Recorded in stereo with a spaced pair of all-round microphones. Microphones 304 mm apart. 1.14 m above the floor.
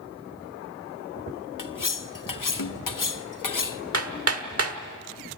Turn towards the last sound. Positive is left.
turn(degrees=-45)  # may be behind; listen again after turning